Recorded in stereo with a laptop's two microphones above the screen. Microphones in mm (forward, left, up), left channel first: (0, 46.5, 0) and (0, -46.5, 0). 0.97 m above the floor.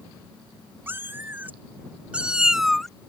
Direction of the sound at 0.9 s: 25° right (ahead or behind).